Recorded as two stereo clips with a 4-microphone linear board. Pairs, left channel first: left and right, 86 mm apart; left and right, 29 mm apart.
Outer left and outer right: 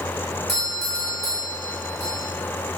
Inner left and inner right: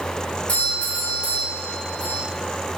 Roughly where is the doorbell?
Left.